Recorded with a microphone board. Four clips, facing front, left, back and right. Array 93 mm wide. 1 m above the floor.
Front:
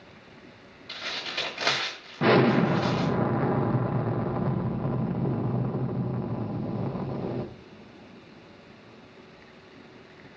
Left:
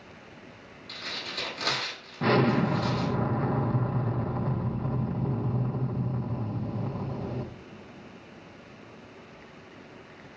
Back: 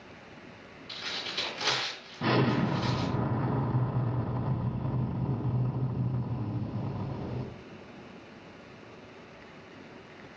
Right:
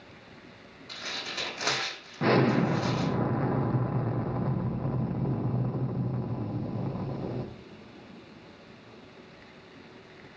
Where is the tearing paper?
20° right, 5 m.